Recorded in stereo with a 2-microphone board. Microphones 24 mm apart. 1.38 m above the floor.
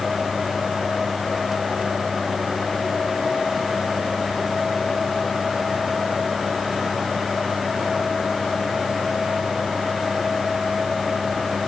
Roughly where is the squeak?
I don't hear a squeak.